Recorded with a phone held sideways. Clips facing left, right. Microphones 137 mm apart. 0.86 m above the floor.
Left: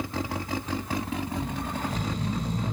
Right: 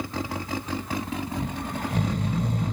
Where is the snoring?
65° right (ahead or behind), 4.5 m.